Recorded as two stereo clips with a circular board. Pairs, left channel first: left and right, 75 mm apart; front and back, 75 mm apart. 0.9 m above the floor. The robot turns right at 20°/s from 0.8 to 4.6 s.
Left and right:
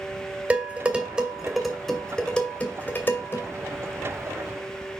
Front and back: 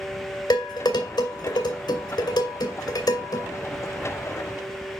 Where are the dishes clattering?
20° right, 2 m; by 3.5 s 35° left, 2 m.